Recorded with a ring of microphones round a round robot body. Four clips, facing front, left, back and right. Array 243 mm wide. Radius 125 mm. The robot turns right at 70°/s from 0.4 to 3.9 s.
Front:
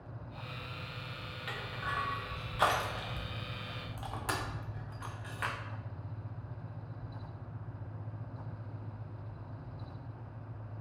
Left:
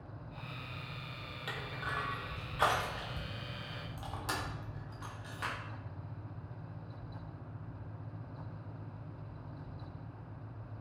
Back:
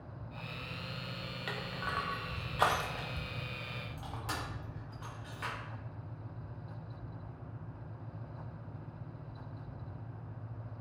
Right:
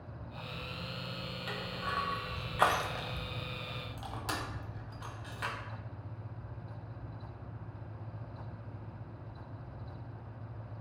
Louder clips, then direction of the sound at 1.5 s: Right 2 dB, even; 170° left.